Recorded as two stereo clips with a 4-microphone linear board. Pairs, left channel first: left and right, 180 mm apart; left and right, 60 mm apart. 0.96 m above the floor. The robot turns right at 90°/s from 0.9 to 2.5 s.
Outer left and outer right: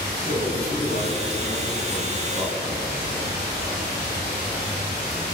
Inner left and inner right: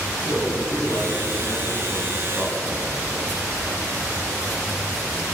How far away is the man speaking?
About 6.5 m.